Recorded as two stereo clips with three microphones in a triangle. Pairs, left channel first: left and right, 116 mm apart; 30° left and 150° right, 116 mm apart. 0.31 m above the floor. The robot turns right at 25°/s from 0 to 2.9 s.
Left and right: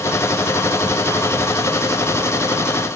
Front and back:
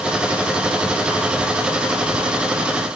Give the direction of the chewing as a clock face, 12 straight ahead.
No chewing in this recording.